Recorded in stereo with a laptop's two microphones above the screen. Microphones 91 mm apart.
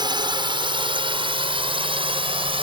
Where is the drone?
55° right (ahead or behind); by 2.6 s 75° right (ahead or behind).